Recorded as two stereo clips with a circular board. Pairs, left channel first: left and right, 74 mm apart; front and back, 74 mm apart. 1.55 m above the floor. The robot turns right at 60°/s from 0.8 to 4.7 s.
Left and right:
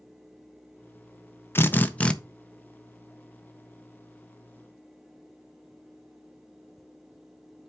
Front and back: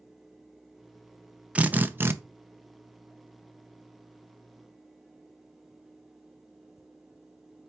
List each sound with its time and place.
1.6 s a drill: 120° left, 0.6 m; by 2.1 s 155° left, 0.6 m